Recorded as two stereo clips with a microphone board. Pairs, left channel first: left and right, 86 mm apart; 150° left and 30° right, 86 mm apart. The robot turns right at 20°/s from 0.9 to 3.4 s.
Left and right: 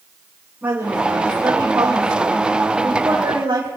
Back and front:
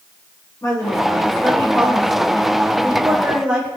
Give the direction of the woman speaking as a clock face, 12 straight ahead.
5 o'clock.